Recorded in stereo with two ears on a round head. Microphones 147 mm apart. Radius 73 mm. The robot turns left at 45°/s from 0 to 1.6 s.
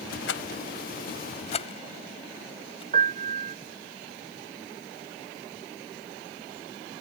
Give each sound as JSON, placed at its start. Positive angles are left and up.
{"t": 0.3, "sound": "a rattle", "side_deg": 80}
{"t": 2.9, "sound": "a piano", "side_deg": -45}